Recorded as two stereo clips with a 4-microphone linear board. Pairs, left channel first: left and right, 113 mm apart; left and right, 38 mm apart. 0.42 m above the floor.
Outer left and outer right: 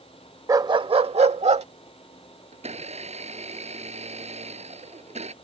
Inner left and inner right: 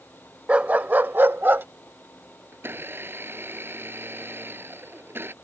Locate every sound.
0.5 s a dog barking: 30° right (ahead or behind); by 1.7 s 75° right (ahead or behind)
2.5 s a blender: 75° right (ahead or behind)